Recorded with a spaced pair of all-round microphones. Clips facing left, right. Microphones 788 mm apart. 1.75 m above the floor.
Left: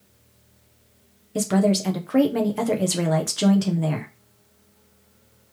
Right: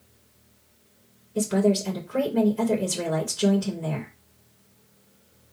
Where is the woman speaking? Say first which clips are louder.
Left 1 dB; 85° left, 1.7 m.